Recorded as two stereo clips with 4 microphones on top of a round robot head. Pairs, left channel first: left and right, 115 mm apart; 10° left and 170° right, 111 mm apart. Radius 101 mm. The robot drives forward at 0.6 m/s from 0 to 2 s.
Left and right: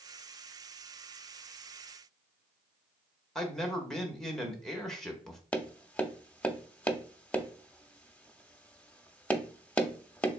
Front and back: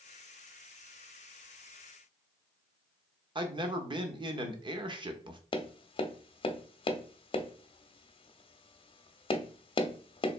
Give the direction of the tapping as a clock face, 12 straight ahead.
12 o'clock.